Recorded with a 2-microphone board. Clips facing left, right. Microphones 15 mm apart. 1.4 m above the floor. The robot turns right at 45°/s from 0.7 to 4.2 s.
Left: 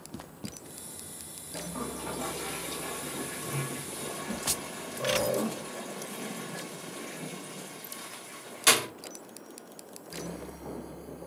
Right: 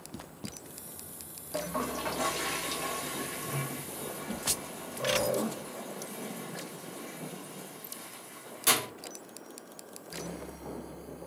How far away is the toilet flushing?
About 4 m.